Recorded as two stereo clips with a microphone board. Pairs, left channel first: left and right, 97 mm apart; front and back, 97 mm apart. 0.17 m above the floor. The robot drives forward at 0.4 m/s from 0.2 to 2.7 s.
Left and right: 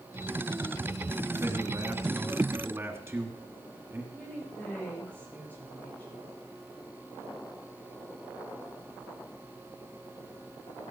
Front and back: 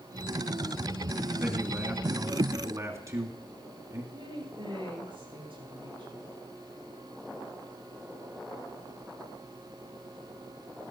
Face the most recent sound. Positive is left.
turn(degrees=160)